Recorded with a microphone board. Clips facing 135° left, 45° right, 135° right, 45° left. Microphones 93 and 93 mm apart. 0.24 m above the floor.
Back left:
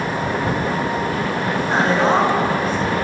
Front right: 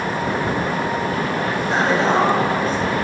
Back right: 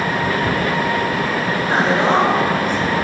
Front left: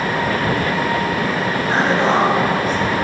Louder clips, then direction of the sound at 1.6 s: Back left 1 dB, back right 1 dB; 155° left.